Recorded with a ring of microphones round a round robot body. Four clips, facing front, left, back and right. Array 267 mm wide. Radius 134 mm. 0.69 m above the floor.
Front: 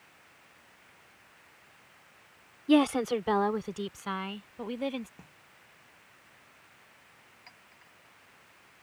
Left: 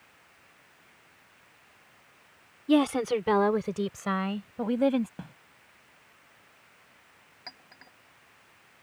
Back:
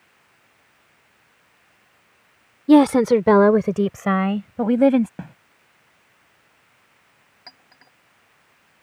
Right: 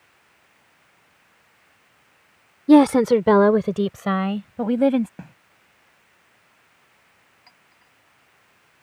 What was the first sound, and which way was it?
A woman speaking, 130° right.